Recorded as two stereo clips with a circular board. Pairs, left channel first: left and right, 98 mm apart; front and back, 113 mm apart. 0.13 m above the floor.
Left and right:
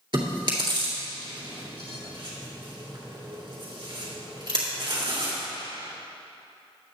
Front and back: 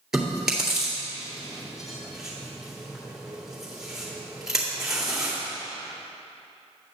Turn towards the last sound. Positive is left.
turn(degrees=-95)